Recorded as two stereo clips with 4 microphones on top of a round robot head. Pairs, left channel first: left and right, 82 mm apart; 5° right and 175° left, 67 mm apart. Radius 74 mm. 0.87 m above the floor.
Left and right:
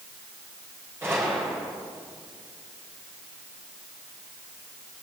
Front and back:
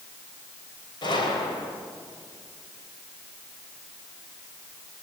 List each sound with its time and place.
1.0 s a gunshot: 20° right, 4.5 m